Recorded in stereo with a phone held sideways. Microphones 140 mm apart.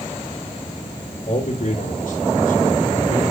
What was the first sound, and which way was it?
A man speaking, 55° left (ahead or behind).